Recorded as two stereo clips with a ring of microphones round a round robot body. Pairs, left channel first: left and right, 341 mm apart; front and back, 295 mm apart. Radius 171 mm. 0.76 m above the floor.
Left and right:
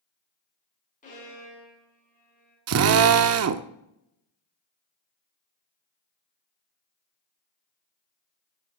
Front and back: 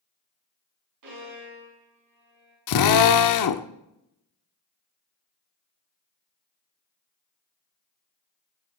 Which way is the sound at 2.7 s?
40° right.